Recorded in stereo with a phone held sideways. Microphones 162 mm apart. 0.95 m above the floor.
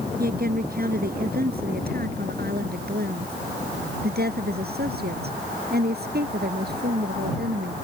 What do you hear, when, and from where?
0.2 s a woman speaking: 65° right (ahead or behind); by 7.8 s 75° right (ahead or behind)